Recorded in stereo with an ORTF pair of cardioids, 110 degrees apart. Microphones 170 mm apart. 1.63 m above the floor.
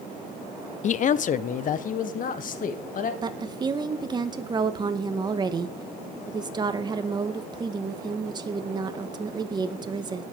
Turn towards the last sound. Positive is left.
turn(degrees=-25)